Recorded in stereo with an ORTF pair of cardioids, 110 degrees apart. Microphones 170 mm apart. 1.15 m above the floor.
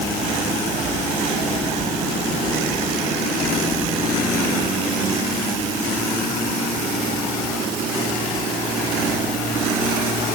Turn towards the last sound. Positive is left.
No sound to turn to.